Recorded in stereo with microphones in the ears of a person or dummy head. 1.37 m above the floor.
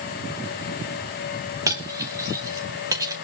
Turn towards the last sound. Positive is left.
turn(degrees=-20)  # may be behind; listen again after turning